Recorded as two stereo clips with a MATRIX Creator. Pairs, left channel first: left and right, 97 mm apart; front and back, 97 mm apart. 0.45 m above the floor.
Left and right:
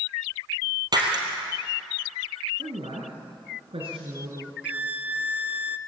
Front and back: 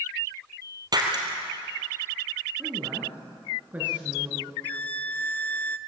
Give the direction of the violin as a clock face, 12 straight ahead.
1 o'clock.